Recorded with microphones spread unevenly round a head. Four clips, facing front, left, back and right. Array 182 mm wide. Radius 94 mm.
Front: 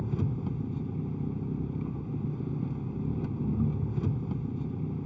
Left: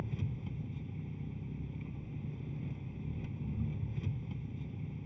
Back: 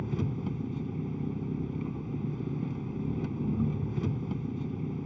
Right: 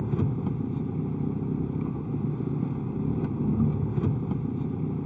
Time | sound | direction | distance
0.0 | an engine running | 100° right | ?